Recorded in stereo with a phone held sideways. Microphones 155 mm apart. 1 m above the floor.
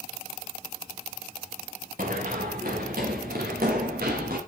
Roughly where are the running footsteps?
Right.